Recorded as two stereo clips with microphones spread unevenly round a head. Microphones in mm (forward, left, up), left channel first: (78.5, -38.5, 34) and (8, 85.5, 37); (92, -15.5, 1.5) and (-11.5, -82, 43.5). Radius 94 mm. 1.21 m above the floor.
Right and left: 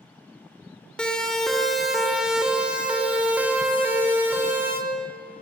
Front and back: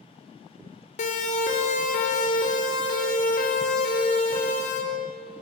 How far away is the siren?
About 4.5 m.